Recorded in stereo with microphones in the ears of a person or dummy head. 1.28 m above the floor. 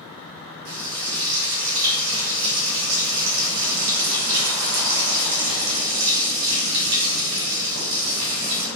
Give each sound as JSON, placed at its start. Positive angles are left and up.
{"t": 0.7, "sound": "frying", "side_deg": -50, "distance_m": 0.7}